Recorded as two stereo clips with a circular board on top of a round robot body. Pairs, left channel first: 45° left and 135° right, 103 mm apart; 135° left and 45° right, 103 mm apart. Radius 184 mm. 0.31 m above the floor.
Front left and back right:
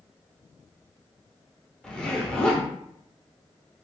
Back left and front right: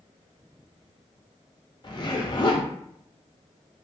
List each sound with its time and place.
1.8 s a zipper: 120° left, 1.0 m